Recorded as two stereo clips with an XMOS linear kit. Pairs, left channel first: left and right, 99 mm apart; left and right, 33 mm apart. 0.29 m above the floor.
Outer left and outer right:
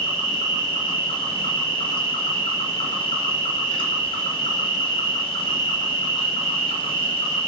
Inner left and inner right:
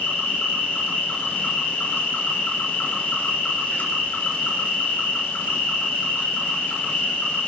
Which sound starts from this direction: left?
An insect, at 0.0 s.